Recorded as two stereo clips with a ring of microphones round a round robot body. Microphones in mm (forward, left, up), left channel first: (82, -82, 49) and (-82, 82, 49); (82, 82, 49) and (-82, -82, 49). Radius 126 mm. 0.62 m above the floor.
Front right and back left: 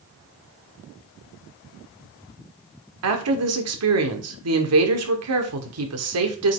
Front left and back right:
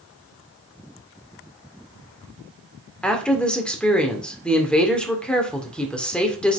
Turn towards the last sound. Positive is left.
turn(degrees=130)